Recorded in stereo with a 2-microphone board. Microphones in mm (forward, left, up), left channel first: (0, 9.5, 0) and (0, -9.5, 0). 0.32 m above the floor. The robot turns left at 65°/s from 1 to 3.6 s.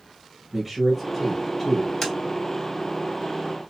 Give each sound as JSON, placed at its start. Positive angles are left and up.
{"t": 0.5, "sound": "a man speaking", "azimuth_deg": -175, "distance_m": 1.1}
{"t": 2.0, "sound": "tapping", "side_deg": 25, "distance_m": 1.6}